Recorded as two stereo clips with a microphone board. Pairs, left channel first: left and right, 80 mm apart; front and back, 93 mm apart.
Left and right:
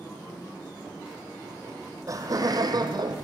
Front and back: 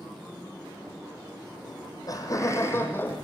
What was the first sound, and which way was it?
Laughter, 35° right.